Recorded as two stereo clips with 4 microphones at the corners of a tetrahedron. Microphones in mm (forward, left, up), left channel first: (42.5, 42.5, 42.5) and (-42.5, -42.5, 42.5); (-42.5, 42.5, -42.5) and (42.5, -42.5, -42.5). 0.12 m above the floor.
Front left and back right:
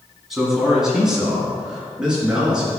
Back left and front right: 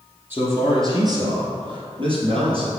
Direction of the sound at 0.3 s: 55° right.